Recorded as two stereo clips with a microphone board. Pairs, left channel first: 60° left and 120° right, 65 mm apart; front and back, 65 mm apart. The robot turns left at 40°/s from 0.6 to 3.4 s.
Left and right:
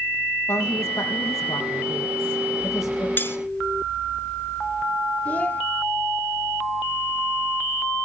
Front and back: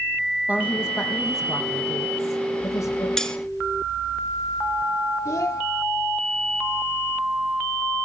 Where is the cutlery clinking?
75° left, 0.9 m; by 3.4 s 65° left, 0.9 m.